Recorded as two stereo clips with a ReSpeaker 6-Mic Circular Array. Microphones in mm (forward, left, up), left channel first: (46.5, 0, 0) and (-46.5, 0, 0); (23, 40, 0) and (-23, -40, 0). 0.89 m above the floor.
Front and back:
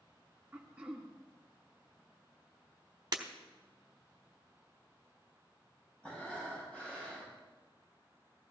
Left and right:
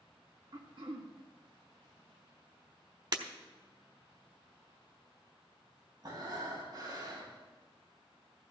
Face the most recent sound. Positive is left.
turn(degrees=-75)